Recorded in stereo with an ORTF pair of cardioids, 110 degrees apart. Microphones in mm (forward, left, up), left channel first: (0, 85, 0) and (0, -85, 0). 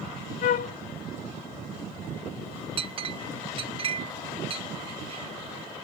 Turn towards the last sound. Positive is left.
turn(degrees=-35)